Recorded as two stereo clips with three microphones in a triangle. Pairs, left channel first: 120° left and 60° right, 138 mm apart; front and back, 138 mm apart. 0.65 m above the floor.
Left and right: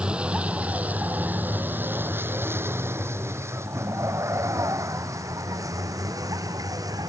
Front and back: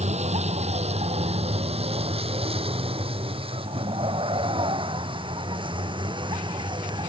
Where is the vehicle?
145° right; by 7.1 s 125° right.